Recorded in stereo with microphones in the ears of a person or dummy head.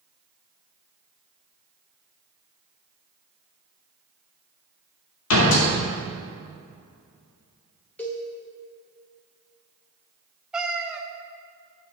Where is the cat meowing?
Centre (ahead or behind), 0.7 m.